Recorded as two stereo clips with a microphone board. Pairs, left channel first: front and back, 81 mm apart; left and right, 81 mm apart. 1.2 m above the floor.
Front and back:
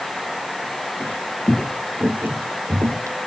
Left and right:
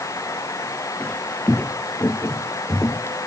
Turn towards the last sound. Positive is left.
turn(degrees=140)